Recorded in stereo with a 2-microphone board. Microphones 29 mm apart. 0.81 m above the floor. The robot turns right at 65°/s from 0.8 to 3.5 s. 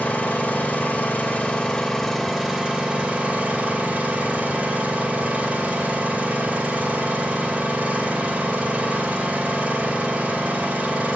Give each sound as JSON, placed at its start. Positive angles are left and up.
{"t": 0.0, "sound": "an engine running", "azimuth_deg": 90, "distance_m": 2.5}